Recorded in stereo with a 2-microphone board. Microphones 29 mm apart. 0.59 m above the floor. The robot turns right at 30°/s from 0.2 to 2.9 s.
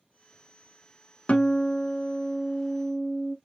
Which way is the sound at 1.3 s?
130° left.